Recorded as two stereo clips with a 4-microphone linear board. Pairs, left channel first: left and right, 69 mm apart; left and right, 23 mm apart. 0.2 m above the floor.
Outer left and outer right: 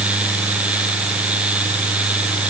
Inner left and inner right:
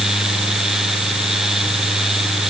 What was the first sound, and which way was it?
Only background noise.